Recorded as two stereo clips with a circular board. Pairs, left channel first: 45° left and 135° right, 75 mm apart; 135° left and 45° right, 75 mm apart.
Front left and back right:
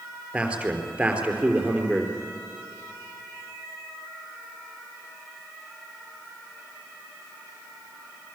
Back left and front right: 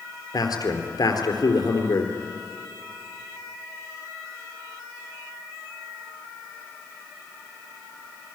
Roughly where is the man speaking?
Behind left.